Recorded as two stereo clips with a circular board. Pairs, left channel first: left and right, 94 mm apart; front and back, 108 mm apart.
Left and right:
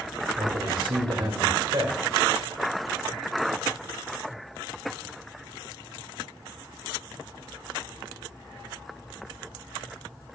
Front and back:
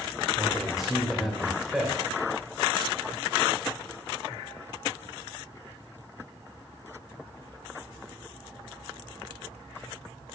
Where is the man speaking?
95° right, 2 m.